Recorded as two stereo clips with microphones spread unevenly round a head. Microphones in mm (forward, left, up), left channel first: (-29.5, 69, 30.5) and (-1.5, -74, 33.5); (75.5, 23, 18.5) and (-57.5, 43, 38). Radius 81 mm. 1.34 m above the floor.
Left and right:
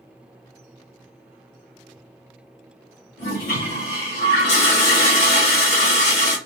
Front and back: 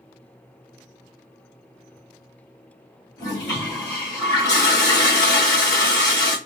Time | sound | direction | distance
3.2 | a toilet flushing | 60° left | 1.6 m